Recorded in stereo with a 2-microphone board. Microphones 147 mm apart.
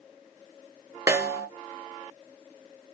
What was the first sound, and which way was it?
A snare drum, 20° right (ahead or behind).